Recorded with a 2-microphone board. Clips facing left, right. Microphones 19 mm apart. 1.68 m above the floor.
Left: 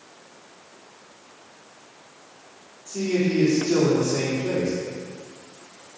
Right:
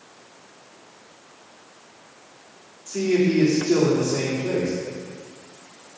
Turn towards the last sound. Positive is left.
turn(degrees=-35)  # may be behind; listen again after turning